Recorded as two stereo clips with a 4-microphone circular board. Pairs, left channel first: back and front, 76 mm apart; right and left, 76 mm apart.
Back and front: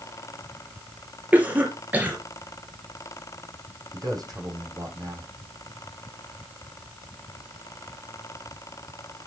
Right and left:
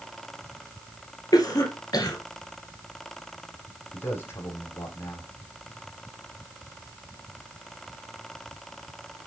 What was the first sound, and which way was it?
A cough, 65° right.